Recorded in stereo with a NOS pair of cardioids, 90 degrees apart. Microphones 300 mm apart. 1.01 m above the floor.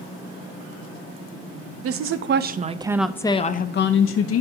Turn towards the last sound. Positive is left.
turn(degrees=60)